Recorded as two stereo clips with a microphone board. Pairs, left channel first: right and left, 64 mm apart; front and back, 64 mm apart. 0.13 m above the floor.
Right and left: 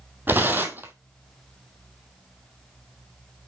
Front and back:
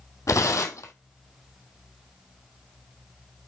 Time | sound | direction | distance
0.3 | tearing paper | 30° left | 1.2 m